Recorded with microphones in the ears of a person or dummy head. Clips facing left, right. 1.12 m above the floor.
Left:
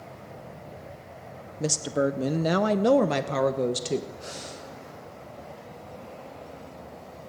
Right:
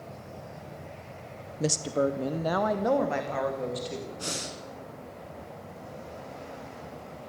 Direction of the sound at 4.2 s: 75° right (ahead or behind).